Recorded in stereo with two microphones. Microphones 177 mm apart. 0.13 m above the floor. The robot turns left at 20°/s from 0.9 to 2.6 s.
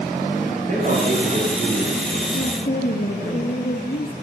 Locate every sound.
0.7 s a man speaking: 130° right, 10 m; by 3.3 s 165° right, 10 m
2.3 s a woman speaking: 45° left (ahead or behind), 3.5 m; by 4.1 s 50° left (ahead or behind), 3.5 m